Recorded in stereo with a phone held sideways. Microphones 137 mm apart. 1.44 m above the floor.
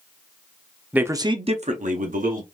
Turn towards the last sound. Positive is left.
turn(degrees=-85)